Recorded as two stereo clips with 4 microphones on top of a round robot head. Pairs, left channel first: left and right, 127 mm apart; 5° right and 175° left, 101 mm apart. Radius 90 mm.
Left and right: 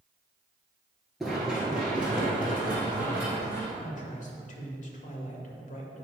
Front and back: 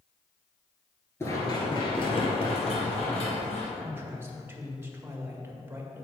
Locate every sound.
1.2 s running footsteps: straight ahead, 1.2 m; by 3.7 s 10° right, 2.5 m
3.8 s a man speaking: 105° left, 1.9 m